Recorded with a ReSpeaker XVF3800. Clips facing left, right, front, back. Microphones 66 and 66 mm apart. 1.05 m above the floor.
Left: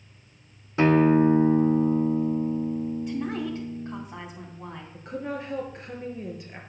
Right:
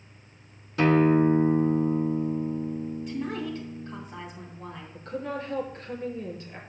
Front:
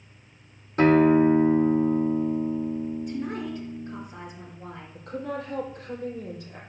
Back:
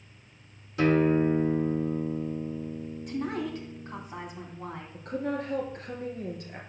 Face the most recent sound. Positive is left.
turn(degrees=160)